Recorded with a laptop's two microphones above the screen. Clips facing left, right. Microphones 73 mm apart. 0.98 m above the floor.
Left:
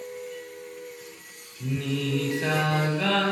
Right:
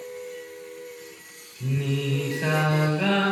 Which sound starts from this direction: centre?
Singing, at 1.6 s.